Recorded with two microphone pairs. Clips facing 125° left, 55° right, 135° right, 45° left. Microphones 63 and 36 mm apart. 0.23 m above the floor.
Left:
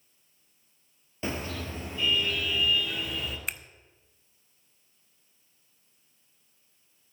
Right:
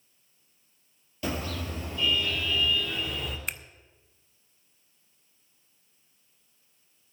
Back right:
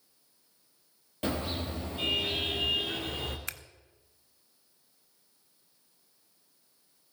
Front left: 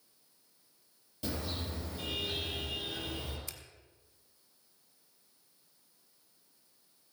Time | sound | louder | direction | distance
1.2 | a car horn | right 1 dB, back right 6 dB | 175° right | 3.5 m
3.5 | scissors | even, back right 9 dB | 145° right | 0.6 m